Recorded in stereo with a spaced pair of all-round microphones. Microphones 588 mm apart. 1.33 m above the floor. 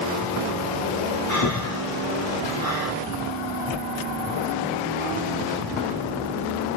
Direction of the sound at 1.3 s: 30° left (ahead or behind).